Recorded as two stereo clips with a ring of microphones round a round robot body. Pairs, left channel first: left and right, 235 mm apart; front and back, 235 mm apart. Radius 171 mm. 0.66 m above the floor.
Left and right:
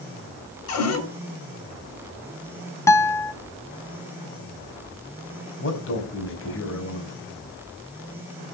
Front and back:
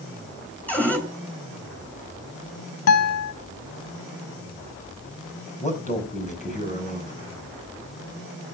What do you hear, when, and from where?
0.7 s a cupboard door: 85° left, 7.5 m
2.9 s a guitar: 10° left, 1.2 m
5.6 s a man speaking: 60° left, 5.5 m